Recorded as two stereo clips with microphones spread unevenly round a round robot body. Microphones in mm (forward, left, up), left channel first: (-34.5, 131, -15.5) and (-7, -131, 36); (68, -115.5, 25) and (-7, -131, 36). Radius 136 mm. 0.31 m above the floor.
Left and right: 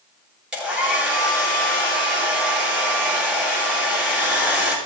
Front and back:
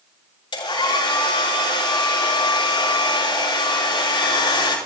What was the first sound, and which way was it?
A hair dryer, 5° left.